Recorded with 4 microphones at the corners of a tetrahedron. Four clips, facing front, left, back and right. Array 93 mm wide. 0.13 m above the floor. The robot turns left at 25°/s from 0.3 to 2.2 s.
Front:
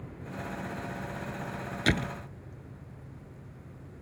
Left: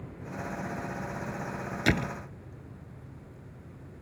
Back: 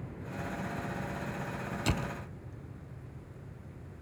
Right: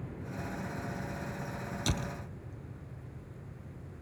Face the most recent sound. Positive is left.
turn(degrees=50)